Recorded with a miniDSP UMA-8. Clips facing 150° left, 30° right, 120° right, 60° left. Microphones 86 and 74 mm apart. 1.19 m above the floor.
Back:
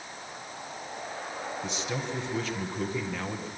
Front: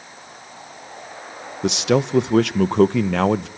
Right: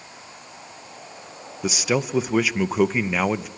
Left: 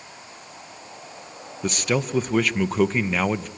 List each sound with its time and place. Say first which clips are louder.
1.6 s a man speaking: front 19 dB, right 1 dB; 40° right, 0.7 m